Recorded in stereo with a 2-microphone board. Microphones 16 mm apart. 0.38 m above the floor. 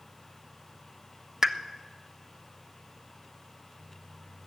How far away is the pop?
About 0.6 m.